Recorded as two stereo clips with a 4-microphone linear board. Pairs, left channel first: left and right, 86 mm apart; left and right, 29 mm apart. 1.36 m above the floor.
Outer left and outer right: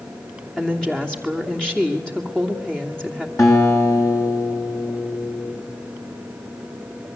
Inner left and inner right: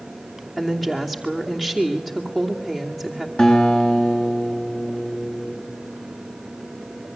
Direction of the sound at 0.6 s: 10° left (ahead or behind).